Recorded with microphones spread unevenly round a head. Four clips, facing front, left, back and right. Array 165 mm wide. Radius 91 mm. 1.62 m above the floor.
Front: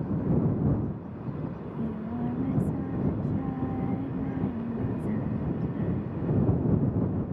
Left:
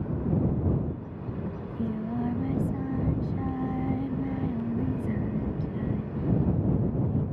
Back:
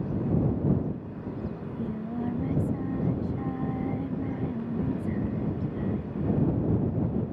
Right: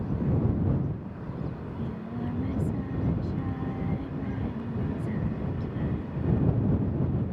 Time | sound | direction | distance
1.6 | singing | 135° left | ?